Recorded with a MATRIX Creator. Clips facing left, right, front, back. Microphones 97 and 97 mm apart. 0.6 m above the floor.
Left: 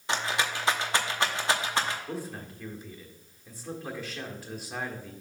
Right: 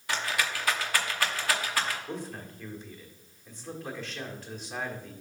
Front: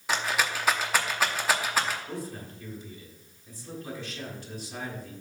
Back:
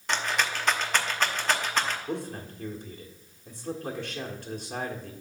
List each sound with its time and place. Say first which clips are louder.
0.1 s a rattle: left 2 dB, even; 75° left, 0.8 m
2.1 s a man speaking: left 1 dB, back 3 dB; 170° left, 1.4 m